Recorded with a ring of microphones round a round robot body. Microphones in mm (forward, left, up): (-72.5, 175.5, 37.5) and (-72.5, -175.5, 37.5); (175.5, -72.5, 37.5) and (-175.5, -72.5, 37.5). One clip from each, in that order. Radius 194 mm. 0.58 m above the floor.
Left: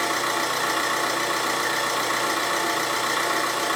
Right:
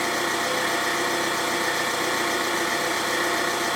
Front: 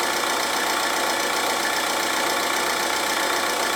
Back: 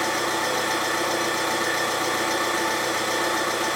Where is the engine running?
20° left, 1.1 m.